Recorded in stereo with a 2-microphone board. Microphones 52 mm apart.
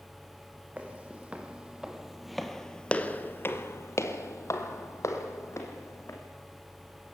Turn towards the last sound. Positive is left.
turn(degrees=65)  # may be behind; listen again after turning